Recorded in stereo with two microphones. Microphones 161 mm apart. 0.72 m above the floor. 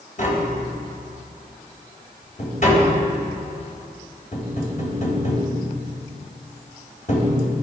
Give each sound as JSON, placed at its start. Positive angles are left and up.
{"t": 0.2, "sound": "tapping", "side_deg": 50, "distance_m": 3.5}